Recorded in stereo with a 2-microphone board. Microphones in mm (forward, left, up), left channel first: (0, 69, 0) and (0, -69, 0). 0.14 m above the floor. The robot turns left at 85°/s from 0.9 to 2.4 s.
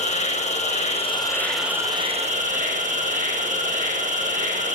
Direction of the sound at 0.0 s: 55° left.